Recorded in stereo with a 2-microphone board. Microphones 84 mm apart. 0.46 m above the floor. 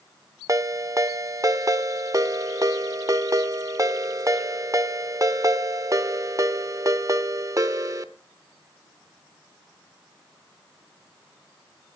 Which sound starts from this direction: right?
A ringtone, at 0.5 s.